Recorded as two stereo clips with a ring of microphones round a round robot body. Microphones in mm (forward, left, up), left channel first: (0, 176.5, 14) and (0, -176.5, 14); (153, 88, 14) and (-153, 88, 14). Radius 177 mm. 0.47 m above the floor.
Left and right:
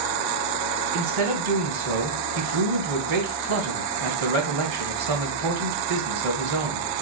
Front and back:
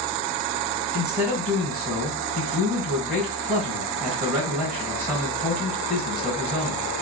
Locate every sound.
0.9 s a man speaking: 90° right, 1.8 m